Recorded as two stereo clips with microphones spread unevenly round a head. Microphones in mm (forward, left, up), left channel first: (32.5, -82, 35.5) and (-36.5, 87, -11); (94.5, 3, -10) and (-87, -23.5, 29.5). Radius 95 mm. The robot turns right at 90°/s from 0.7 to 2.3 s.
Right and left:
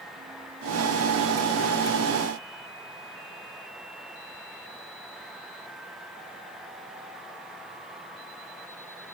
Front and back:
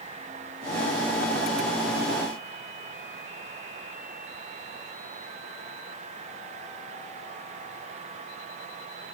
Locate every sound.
Only background noise.